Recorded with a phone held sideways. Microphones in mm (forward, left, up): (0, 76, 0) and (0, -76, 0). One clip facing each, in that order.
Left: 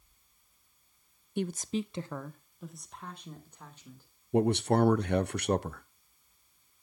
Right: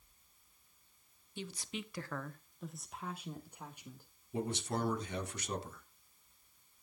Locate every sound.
1.4 s a woman speaking: 60° left (ahead or behind), 0.5 m; by 4.1 s 15° right (ahead or behind), 1.9 m
4.3 s a man speaking: 65° left (ahead or behind), 0.7 m